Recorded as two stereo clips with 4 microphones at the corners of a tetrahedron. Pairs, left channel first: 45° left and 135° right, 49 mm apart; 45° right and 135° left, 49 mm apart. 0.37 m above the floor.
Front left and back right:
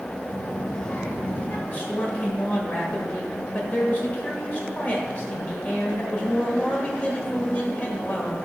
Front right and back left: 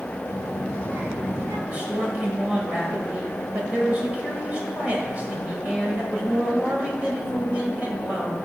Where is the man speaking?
85° left, 1.7 m.